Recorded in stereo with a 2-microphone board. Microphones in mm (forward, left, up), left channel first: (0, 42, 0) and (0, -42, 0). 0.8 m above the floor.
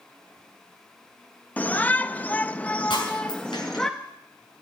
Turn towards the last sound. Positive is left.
turn(degrees=70)  # may be behind; listen again after turning